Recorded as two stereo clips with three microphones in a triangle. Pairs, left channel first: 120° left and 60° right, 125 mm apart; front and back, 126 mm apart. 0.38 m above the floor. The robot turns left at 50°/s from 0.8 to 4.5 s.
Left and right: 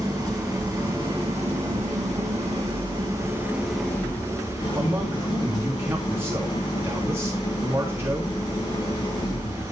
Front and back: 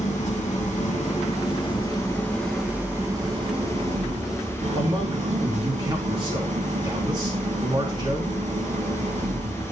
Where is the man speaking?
130° right, 4 m.